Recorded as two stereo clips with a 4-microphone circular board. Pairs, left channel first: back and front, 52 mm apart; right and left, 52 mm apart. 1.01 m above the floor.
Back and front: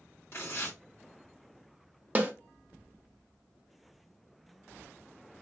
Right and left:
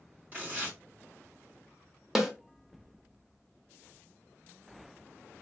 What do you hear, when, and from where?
0.3 s tearing paper: 140° left, 1.6 m
2.1 s a snare drum: 10° left, 0.8 m